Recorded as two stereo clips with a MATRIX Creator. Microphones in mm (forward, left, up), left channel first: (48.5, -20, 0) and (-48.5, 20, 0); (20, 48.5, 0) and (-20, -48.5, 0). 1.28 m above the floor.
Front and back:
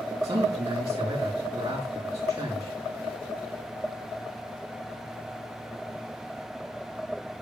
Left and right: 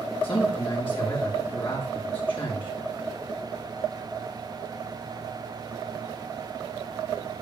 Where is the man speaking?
100° left, 3.5 m.